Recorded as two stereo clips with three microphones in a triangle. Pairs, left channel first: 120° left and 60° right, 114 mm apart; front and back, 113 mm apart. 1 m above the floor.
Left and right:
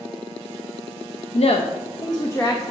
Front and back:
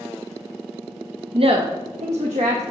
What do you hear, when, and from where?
1.3 s a woman speaking: 140° left, 0.6 m; by 2.6 s 170° right, 1.0 m